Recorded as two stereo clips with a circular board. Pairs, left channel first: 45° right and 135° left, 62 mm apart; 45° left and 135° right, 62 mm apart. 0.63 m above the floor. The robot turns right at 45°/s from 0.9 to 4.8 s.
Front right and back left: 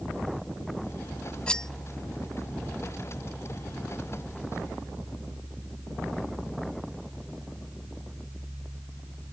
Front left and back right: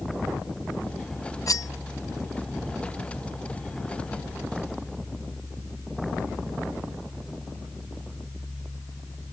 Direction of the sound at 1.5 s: 30° left.